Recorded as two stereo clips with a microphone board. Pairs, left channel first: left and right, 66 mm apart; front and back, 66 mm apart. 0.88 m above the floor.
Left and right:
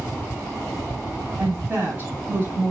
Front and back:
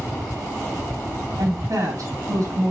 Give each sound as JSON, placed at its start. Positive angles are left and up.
{"t": 1.4, "sound": "a woman speaking", "azimuth_deg": -150, "distance_m": 5.5}